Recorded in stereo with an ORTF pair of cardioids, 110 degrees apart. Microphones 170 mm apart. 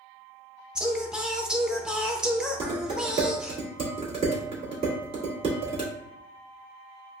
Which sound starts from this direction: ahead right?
Dishes clattering, at 2.6 s.